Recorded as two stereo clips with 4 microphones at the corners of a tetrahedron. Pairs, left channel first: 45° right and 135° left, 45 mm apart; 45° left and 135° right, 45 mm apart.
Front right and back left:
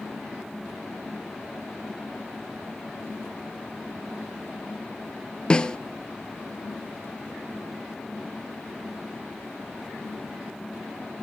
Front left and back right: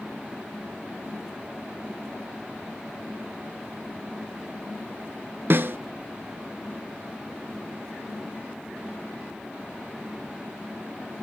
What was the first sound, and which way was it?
A snare drum, 110° right.